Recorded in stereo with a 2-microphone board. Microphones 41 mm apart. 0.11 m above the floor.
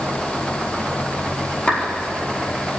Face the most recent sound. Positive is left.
turn(degrees=25)  # may be behind; listen again after turning